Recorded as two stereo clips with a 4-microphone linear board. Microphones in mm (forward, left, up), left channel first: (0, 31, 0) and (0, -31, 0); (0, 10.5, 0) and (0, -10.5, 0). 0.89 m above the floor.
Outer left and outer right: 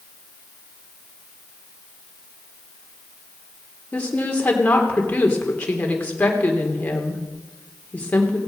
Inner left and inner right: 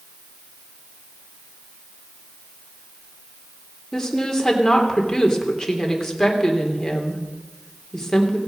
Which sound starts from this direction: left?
A woman speaking, at 3.9 s.